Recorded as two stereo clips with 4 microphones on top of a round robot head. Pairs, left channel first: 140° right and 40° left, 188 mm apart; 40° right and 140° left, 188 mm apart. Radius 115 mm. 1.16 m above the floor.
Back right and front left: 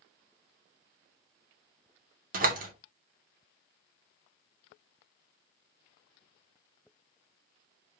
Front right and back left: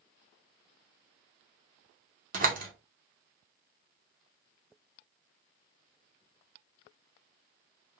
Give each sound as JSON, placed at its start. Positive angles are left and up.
{"t": 2.3, "sound": "a door slam", "azimuth_deg": 90, "distance_m": 2.5}